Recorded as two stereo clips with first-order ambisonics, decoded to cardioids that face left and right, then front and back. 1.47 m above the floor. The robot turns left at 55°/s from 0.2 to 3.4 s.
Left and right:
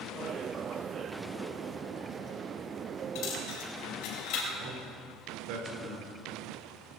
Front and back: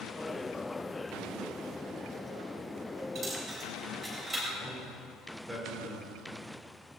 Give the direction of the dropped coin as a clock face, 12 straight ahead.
8 o'clock.